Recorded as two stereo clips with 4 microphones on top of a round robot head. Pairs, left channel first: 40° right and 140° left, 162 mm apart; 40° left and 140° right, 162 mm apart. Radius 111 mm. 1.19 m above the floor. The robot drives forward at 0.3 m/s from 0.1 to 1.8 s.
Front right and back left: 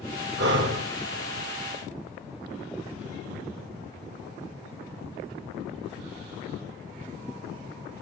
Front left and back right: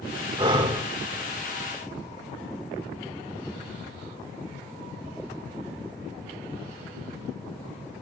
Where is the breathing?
155° left, 1.6 m; by 0.8 s 160° left, 1.7 m.